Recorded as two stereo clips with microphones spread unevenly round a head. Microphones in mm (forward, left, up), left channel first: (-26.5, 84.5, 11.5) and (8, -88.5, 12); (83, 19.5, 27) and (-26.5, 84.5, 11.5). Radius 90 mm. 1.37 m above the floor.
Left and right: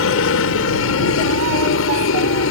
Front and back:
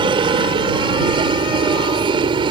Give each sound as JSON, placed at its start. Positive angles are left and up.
{"t": 0.0, "sound": "a helicopter", "azimuth_deg": 100}